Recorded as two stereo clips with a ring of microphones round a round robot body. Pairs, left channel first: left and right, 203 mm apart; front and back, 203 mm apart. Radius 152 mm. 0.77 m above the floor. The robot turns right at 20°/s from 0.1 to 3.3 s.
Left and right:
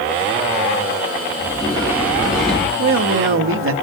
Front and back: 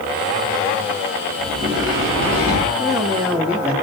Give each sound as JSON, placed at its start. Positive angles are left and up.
{"t": 1.4, "sound": "a sliding door", "azimuth_deg": 145, "distance_m": 6.0}
{"t": 2.8, "sound": "a man speaking", "azimuth_deg": -105, "distance_m": 1.3}